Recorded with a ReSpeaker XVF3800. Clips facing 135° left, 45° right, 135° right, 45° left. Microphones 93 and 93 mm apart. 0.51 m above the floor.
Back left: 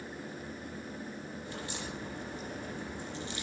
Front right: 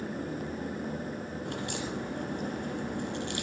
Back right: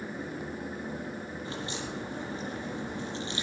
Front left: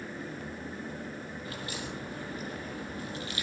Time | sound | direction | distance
1.4 | a crack | 70° right | 9.5 m